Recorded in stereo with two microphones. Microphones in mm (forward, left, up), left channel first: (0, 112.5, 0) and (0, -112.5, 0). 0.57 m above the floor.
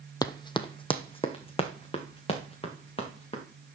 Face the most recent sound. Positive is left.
turn(degrees=25)  # may be behind; listen again after turning